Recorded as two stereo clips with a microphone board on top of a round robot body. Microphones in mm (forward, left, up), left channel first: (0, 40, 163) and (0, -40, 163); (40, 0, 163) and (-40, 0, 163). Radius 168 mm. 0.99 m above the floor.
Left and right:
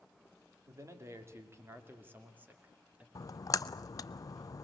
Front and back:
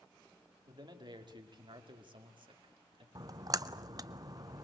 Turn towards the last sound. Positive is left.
turn(degrees=135)